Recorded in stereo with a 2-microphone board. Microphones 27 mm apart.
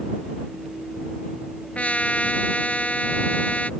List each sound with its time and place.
1.8 s a trumpet: 60° left (ahead or behind)